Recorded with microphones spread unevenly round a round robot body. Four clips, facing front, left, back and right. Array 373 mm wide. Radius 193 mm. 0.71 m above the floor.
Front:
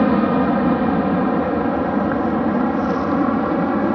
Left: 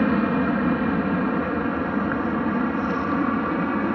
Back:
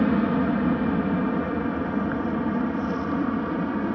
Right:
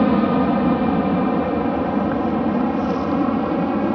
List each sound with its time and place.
0.0 s an aircraft: 40° right; by 4.0 s 25° right